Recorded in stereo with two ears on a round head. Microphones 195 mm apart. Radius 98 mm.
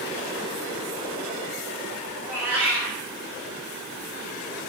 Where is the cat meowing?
10° right (ahead or behind), 1.8 m.